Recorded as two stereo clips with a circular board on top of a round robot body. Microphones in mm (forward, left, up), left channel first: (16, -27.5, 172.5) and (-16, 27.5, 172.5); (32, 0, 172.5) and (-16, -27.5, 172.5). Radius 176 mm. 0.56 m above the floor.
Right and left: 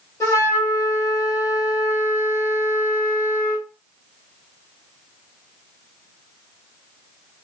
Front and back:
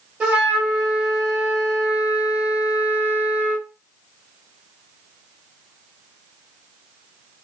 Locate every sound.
0.2 s a flute: 85° right, 2.5 m